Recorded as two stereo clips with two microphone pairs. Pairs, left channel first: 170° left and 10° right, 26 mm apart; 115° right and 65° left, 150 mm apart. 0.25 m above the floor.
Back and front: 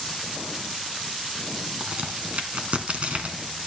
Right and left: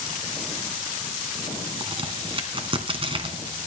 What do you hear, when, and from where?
1.8 s a crack: 15° left, 2 m